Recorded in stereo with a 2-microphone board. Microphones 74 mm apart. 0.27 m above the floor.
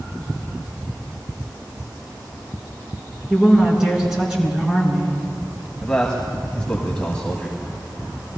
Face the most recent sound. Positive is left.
turn(degrees=10)  # may be behind; listen again after turning